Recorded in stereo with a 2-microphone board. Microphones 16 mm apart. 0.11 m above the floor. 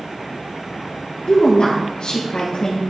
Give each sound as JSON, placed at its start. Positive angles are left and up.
{"t": 1.3, "sound": "a woman speaking", "side_deg": 60, "distance_m": 3.5}